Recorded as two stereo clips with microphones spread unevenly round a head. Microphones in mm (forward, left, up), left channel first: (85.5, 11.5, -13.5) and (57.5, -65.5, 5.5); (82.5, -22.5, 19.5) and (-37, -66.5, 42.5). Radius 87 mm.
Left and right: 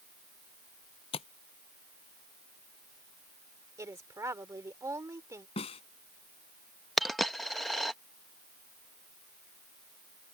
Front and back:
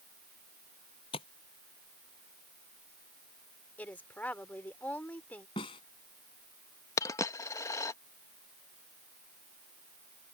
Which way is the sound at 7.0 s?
40° right.